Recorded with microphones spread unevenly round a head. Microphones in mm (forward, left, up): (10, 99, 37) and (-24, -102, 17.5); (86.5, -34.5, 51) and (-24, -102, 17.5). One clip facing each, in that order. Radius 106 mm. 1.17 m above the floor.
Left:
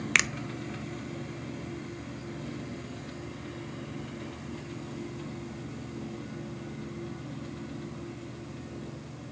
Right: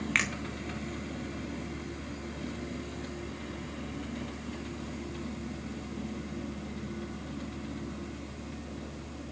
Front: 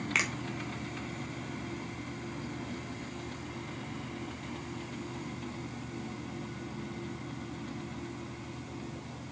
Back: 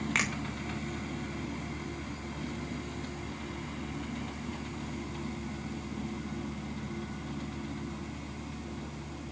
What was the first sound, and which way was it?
A finger snap, 110° left.